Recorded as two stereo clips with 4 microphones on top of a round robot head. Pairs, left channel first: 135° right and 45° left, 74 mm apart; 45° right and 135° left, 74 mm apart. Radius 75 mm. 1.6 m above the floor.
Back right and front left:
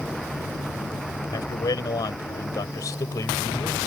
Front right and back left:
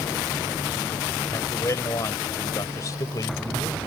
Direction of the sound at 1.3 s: 95° right.